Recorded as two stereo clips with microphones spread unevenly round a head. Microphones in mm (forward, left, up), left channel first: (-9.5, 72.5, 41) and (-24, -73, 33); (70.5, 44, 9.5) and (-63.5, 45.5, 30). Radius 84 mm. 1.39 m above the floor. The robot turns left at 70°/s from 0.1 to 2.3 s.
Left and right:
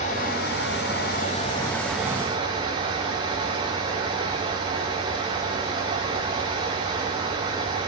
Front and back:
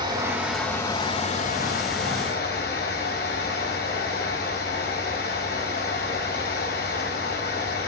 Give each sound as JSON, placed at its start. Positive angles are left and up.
{"t": 0.0, "sound": "running water", "azimuth_deg": 120, "distance_m": 6.5}